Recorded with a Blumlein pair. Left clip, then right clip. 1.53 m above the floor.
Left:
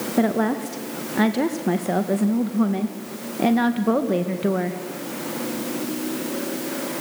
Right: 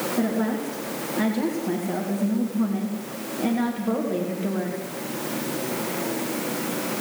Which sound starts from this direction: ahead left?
A woman speaking, at 0.2 s.